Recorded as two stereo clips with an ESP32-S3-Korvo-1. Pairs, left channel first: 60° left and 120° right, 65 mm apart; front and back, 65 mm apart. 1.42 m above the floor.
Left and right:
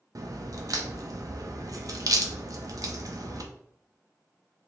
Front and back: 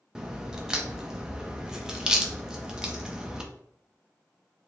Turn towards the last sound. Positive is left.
turn(degrees=-100)